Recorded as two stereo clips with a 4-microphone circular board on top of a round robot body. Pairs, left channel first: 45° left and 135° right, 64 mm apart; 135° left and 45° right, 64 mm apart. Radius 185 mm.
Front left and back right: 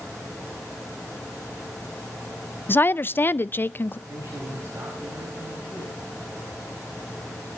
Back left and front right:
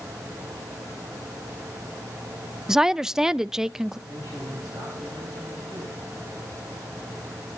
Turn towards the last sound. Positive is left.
turn(degrees=-105)